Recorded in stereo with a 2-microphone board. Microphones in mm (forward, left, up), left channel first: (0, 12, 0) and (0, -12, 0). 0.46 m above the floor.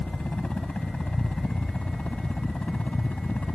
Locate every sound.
0.0 s a helicopter: 60° left (ahead or behind); by 3.5 s 65° left (ahead or behind)